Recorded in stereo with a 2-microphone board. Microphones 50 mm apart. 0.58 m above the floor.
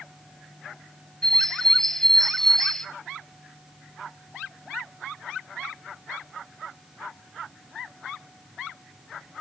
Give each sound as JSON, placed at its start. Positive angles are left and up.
{"t": 1.2, "sound": "a bird", "side_deg": 10, "distance_m": 1.1}